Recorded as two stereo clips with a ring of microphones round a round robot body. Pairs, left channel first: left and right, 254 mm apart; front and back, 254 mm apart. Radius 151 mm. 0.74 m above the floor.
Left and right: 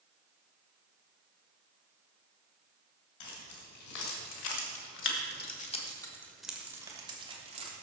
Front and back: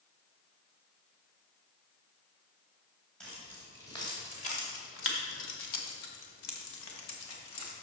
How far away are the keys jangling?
About 3 m.